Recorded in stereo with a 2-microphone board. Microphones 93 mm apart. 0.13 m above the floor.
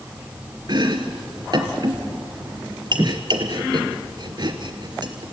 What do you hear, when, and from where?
0.7 s chopping: 50° right (ahead or behind), 1.6 m